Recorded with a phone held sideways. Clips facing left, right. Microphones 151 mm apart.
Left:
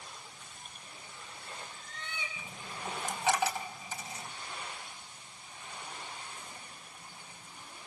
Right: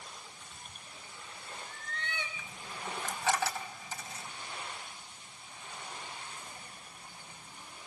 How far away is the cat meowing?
About 3 m.